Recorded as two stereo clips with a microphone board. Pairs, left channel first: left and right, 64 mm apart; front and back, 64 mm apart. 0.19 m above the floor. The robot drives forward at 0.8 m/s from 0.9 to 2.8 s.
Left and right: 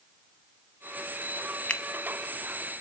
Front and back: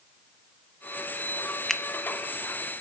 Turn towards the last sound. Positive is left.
turn(degrees=160)